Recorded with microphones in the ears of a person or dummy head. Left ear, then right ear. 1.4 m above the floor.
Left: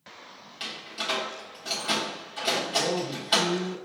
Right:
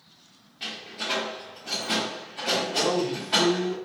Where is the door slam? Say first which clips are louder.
Even; 55° left (ahead or behind), 1.2 m.